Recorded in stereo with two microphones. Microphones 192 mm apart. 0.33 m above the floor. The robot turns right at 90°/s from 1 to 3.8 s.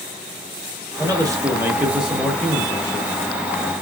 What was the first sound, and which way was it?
A man speaking, 20° right (ahead or behind).